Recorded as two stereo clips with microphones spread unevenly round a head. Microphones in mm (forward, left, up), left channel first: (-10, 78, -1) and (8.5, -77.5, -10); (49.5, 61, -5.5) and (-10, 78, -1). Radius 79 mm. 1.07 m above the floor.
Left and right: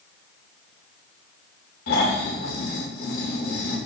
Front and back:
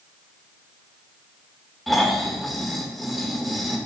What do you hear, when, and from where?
1.9 s snoring: 70° left, 1.8 m